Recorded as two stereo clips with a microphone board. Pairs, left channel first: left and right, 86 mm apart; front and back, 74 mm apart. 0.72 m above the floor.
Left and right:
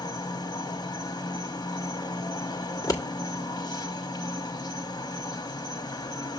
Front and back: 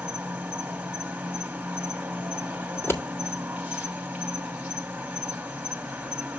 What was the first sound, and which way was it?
An insect, 110° left.